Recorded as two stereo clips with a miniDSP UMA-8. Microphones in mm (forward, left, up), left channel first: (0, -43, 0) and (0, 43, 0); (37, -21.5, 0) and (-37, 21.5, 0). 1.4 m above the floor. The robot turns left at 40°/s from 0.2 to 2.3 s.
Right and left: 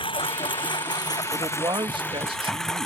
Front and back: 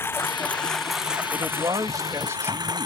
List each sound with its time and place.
0.0 s a lawn mower: 95° right; by 2.9 s 175° right
1.3 s a man speaking: 130° left; by 2.9 s 95° left